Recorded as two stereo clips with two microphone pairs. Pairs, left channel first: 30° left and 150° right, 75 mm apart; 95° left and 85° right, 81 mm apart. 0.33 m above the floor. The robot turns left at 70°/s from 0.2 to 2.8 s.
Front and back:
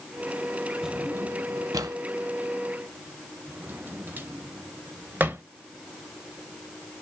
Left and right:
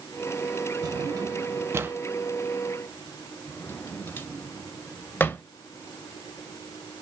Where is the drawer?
70° right, 0.6 m; by 5.4 s 150° left, 0.6 m.